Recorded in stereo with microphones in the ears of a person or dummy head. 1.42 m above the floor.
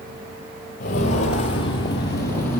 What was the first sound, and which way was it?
Footsteps, 40° left (ahead or behind).